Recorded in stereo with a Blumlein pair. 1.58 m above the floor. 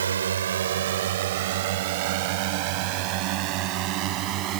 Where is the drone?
70° right; by 4.6 s 35° right.